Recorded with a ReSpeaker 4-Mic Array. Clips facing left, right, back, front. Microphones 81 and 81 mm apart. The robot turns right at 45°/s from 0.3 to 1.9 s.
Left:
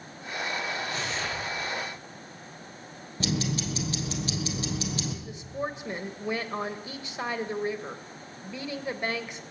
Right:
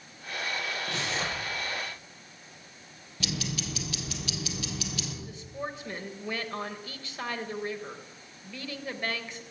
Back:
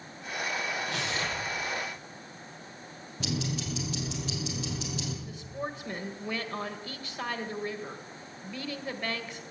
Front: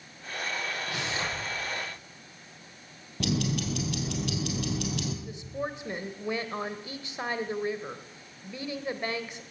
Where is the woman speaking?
45° left, 1.6 m.